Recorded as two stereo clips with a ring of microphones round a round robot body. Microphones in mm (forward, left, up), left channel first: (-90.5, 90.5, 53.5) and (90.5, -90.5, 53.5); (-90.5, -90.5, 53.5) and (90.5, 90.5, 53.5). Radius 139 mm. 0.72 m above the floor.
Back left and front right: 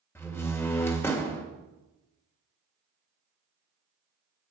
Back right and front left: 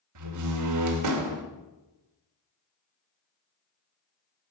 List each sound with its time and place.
0.1 s a door slam: 55° left, 2.5 m